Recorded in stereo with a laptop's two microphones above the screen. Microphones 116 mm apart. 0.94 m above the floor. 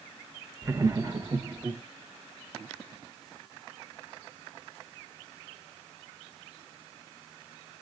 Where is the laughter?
20° right (ahead or behind), 0.7 m; by 1.8 s 35° right (ahead or behind), 1.2 m.